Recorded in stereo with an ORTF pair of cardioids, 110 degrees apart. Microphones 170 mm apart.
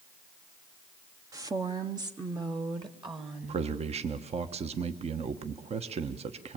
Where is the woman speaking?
20° right, 0.8 m; by 3.7 s 25° right, 2.5 m.